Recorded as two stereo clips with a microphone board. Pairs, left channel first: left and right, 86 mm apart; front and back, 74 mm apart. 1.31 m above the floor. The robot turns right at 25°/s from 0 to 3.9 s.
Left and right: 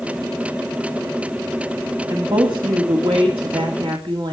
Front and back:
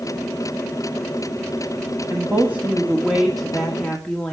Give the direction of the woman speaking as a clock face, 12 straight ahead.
4 o'clock.